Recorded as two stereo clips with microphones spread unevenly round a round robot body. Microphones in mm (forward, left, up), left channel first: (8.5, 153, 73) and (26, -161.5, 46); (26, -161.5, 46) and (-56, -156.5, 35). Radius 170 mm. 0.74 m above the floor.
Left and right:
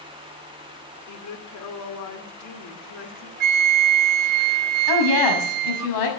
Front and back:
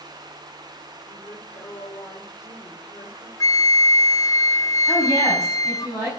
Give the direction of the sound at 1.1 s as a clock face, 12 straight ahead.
10 o'clock.